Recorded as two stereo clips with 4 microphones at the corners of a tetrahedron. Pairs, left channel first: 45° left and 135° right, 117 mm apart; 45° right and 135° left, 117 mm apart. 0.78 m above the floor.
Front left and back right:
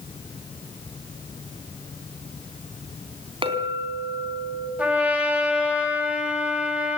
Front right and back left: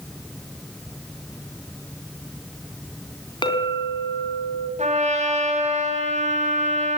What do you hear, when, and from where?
3.4 s a clink: 90° right, 3.5 m
4.8 s a trumpet: 145° left, 6 m